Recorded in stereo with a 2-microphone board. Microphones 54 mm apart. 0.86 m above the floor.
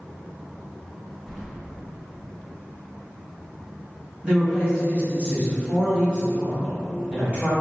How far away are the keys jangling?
About 0.5 m.